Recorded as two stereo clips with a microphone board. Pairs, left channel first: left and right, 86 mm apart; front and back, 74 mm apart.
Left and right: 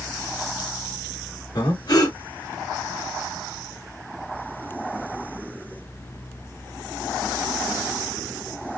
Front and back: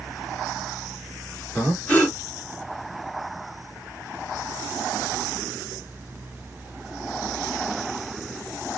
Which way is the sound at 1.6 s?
70° left.